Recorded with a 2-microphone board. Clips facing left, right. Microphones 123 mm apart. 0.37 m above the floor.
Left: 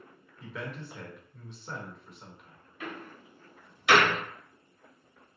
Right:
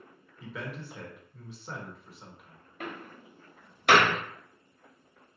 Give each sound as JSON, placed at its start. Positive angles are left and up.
{"t": 0.4, "sound": "a man speaking", "side_deg": -5, "distance_m": 0.8}
{"t": 2.8, "sound": "a door slam", "side_deg": -55, "distance_m": 0.9}